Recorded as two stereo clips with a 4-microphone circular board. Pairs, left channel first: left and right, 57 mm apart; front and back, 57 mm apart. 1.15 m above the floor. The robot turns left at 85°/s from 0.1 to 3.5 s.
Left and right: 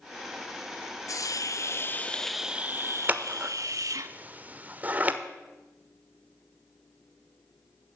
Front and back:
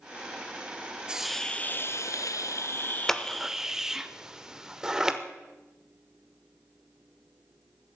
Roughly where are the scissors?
Right.